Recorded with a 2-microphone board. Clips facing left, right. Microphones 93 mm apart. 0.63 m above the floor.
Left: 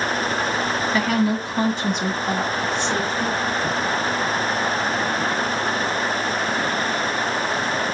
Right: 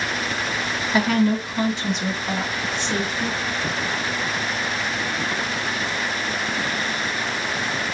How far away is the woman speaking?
About 0.6 m.